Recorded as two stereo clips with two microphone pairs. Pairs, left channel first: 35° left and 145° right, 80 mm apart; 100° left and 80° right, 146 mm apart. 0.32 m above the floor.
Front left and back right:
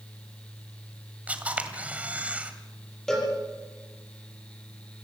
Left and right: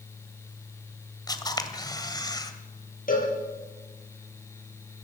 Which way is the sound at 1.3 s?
150° left.